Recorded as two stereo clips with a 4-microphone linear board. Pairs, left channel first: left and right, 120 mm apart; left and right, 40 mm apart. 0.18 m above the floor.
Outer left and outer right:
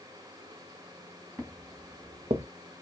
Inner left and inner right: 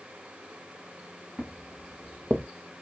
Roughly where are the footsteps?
Centre.